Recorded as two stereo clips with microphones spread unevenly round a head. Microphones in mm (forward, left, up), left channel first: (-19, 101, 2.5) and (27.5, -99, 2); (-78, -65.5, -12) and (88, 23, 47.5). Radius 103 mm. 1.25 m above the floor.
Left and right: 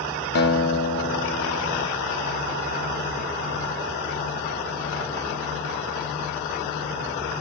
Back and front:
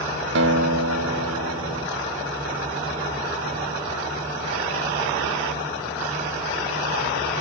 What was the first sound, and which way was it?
A guitar, 65° left.